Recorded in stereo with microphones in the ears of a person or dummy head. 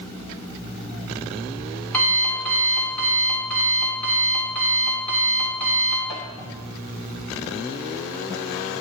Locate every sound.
0.5 s an alarm clock: 5° left (ahead or behind), 2.5 m